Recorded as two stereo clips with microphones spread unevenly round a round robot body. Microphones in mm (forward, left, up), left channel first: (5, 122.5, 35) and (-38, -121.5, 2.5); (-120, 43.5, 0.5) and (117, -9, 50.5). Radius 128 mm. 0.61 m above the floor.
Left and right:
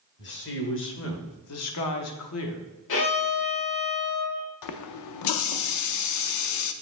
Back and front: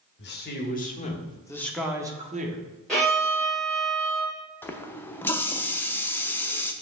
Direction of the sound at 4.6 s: 90° left.